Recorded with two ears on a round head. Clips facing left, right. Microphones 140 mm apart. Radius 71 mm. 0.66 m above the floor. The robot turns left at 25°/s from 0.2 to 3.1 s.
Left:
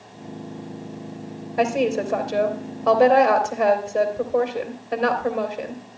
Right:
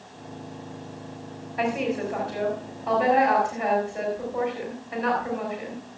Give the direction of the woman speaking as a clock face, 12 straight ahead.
8 o'clock.